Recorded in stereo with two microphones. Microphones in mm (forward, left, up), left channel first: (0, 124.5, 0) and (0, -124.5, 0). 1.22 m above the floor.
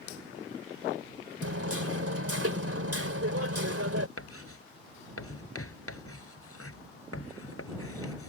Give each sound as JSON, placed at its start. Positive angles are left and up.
{"t": 1.4, "sound": "hammering", "side_deg": -75}
{"t": 4.2, "sound": "writing", "side_deg": 70}